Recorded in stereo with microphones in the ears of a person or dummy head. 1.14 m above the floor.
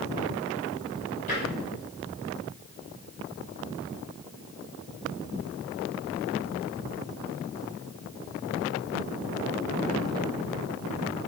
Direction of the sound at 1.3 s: 40° left (ahead or behind).